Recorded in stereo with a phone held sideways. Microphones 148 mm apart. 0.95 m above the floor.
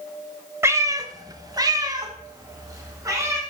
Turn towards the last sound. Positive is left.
turn(degrees=-20)  # may be behind; listen again after turning